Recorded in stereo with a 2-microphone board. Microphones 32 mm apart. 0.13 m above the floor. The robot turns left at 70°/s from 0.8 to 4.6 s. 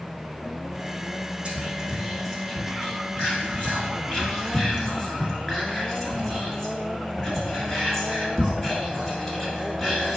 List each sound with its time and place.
1.4 s whispering: 35° right (ahead or behind), 1.5 m; by 10.2 s 10° left (ahead or behind), 1.5 m